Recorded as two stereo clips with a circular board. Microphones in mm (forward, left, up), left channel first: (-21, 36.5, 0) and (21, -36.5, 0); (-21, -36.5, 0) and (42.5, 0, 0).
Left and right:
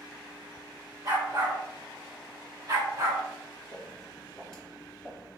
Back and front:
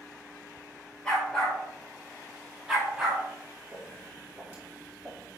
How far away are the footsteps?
About 2.0 m.